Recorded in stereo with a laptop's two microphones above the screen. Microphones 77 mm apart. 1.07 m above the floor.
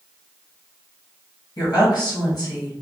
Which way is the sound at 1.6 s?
60° left (ahead or behind).